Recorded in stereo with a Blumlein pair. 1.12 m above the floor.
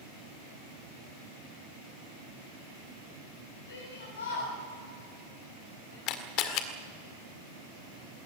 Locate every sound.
3.7 s a shout: 70° left, 6.5 m
6.1 s a camera shutter: 40° left, 1.9 m